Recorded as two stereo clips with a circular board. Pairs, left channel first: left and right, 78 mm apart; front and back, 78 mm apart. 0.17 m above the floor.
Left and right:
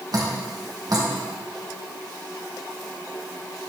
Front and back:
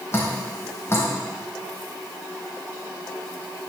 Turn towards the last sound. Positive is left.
turn(degrees=-60)